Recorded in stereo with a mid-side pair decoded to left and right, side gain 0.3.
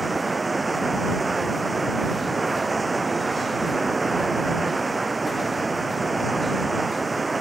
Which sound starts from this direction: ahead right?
Running water, at 0.0 s.